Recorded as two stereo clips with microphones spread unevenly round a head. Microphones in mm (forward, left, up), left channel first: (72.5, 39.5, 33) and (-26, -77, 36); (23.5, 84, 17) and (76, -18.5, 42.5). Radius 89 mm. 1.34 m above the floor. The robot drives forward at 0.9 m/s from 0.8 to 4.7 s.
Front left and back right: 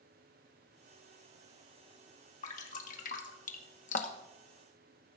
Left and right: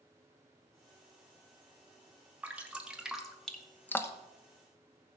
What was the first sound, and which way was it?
Dripping, 10° left.